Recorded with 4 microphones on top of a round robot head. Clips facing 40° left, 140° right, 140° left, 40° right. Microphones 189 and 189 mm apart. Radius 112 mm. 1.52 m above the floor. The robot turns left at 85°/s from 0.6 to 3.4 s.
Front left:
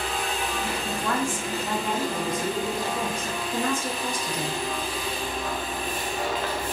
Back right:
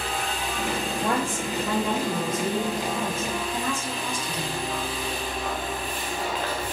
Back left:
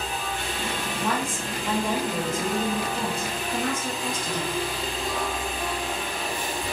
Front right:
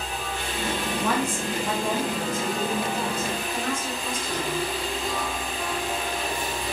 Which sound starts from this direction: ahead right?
A woman speaking, at 1.0 s.